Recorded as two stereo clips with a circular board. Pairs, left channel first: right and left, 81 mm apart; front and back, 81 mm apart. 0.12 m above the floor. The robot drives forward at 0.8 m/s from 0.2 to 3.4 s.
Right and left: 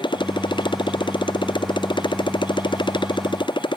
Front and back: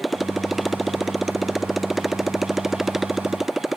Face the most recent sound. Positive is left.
turn(degrees=-95)